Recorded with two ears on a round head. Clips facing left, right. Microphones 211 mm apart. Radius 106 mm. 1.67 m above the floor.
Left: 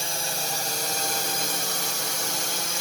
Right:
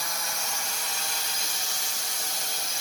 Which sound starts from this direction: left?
A drone, at 0.0 s.